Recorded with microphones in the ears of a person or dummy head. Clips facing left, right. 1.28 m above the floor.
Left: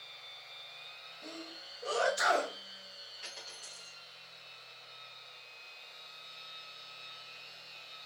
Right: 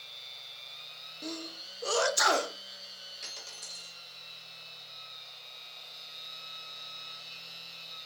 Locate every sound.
0.0 s a machine running: 55° right (ahead or behind), 1.1 m
1.2 s a sneeze: 55° right (ahead or behind), 0.7 m
3.2 s a dropped coin: 60° right (ahead or behind), 1.8 m